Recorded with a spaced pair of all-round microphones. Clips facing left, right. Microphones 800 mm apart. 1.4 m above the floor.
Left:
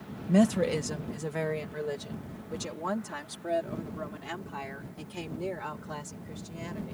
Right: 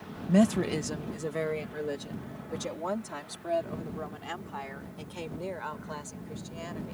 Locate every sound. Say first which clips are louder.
0.3 s a woman speaking: even; 5° right (ahead or behind); by 6.9 s 60° left (ahead or behind)